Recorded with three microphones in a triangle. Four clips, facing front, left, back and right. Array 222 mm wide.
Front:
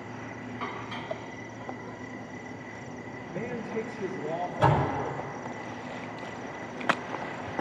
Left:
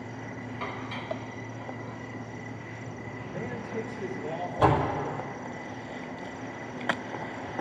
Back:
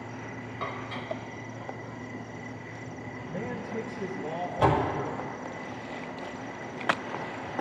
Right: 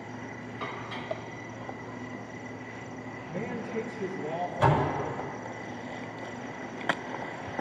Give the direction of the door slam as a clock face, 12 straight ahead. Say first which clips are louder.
Left 2 dB, even; 7 o'clock.